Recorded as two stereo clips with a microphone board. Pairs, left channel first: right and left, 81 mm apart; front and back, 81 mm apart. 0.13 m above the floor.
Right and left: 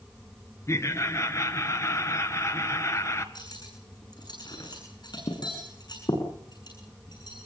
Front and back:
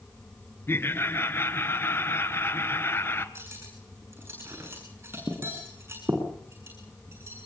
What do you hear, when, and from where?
0.7 s laughter: 50° right, 1.8 m
3.4 s cutlery clinking: 120° right, 7 m